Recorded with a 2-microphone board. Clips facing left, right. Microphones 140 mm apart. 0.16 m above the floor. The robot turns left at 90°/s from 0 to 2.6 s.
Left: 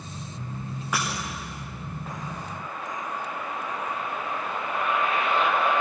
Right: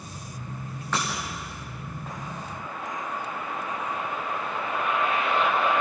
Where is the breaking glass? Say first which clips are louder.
Even; 10° left (ahead or behind), 9.5 m; by 1.1 s 20° left (ahead or behind), 9.5 m.